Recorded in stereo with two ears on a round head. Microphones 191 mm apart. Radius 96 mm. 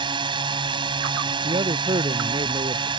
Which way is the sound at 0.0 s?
25° right (ahead or behind).